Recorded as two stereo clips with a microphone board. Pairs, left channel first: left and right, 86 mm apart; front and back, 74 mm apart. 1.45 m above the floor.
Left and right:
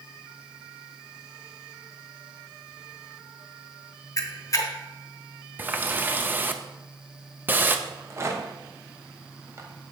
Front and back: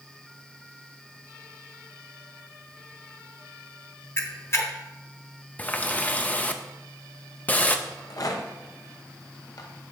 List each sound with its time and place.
4.2 s a camera shutter: 45° left, 0.8 m
5.6 s a running tap: 50° right, 0.5 m
7.9 s a rattle: 35° right, 0.9 m